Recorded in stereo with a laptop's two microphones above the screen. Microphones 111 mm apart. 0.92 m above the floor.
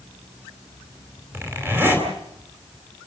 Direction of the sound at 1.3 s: 20° right (ahead or behind).